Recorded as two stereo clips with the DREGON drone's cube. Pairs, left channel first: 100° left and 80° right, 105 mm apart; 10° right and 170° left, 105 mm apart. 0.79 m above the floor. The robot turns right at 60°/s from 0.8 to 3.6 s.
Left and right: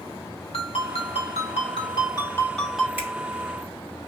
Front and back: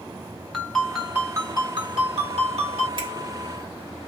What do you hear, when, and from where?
0.5 s a ringtone: 75° left, 2 m; by 2.9 s 160° right, 2 m
3.0 s a finger snap: 150° right, 2.5 m; by 3.1 s 140° right, 2.5 m